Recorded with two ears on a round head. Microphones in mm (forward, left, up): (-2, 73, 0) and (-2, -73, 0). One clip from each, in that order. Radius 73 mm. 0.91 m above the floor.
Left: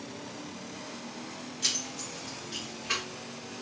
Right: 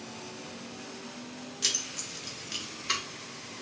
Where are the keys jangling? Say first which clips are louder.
Right 1 dB; 20° right (ahead or behind), 0.7 m; by 3.0 s 85° right, 1.3 m.